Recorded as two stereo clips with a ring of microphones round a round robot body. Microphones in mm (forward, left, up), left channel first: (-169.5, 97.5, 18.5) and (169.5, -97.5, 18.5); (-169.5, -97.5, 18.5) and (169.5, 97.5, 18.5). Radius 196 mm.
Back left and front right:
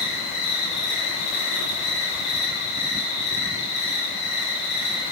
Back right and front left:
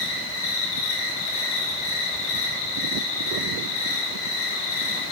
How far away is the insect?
About 3.5 m.